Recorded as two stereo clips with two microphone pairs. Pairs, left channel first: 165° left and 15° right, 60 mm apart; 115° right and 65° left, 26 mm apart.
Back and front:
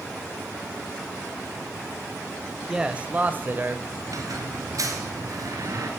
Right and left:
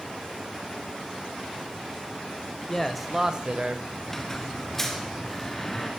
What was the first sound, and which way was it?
A man speaking, 85° right.